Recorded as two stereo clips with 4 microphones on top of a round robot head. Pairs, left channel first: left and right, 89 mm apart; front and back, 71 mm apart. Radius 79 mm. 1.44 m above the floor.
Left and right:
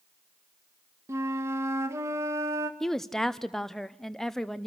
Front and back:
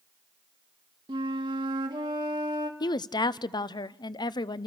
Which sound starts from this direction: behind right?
A flute, at 1.1 s.